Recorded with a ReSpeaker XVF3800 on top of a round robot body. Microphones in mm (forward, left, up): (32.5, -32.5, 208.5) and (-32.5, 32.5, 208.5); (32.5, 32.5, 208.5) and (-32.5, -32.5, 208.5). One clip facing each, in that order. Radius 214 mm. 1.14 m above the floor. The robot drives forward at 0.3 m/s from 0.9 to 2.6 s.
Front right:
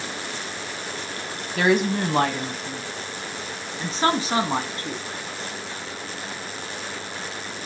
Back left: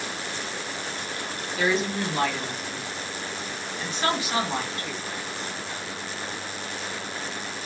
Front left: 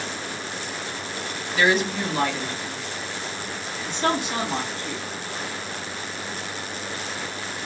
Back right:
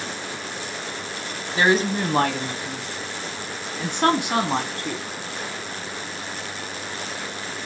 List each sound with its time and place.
1.6 s a woman speaking: 75° right, 0.6 m; by 5.0 s 105° right, 0.6 m